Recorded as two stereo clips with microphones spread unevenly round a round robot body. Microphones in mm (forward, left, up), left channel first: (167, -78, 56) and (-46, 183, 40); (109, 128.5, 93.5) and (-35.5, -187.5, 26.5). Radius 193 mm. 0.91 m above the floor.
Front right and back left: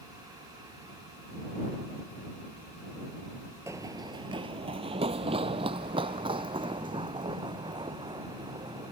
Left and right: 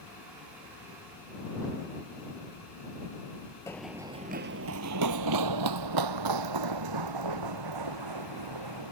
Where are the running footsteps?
55° left; by 8.9 s 150° right.